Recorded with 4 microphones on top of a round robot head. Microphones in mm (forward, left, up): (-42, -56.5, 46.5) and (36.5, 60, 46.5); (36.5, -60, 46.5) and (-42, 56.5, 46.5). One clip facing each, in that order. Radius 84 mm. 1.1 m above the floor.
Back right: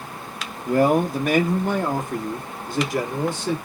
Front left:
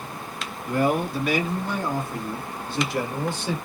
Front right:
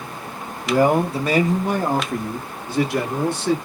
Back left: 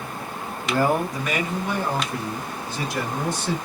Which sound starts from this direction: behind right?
A man speaking, at 0.7 s.